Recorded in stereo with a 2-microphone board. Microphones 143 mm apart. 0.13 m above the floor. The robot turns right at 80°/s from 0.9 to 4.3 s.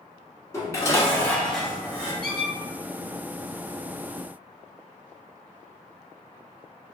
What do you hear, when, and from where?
0.5 s dishes clattering: 20° left (ahead or behind), 1.0 m; by 2.1 s 15° right (ahead or behind), 1.0 m
2.2 s a squeak: 10° left (ahead or behind), 1.5 m; by 2.5 s 30° left (ahead or behind), 1.5 m